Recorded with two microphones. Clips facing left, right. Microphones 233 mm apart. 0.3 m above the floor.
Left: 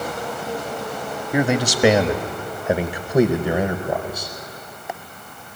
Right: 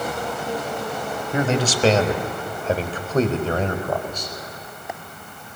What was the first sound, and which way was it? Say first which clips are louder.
A man speaking: left 2 dB; 10° left (ahead or behind).